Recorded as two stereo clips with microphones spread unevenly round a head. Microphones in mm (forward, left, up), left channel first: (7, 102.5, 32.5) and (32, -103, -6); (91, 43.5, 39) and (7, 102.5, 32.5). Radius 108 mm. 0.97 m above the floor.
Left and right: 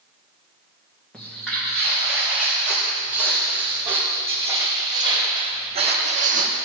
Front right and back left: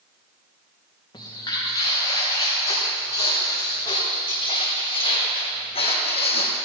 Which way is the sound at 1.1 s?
10° left.